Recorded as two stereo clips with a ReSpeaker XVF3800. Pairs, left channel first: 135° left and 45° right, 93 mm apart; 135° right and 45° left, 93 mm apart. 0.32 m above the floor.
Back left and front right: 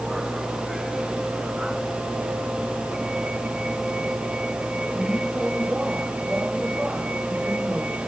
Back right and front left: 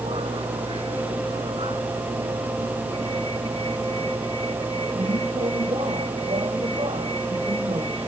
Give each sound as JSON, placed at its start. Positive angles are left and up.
{"t": 0.0, "sound": "a vehicle", "azimuth_deg": 40}